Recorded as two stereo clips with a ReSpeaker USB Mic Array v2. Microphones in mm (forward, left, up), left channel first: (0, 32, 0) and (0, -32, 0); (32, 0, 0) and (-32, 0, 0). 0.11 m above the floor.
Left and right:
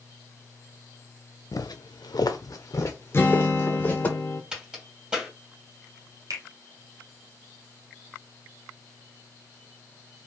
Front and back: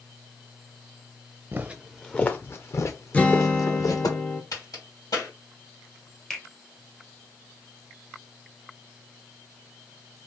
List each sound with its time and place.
1.5 s footsteps: 120° left, 0.5 m; by 4.1 s 25° left, 1.7 m
3.1 s a guitar: 55° left, 0.7 m
4.5 s a crack: 10° right, 2.5 m
6.3 s a finger snap: 80° right, 1.6 m